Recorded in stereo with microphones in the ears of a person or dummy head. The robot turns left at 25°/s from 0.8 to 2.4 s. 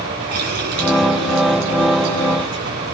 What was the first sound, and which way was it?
A running tap, 55° right.